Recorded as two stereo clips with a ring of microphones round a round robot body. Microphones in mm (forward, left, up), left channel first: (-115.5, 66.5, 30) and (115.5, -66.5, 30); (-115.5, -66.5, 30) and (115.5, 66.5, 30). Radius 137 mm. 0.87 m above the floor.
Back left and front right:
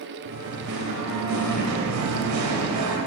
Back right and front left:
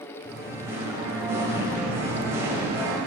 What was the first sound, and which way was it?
Singing, 50° right.